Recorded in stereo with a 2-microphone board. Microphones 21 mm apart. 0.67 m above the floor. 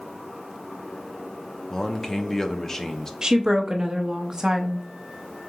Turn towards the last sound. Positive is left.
turn(degrees=-30)  # may be behind; listen again after turning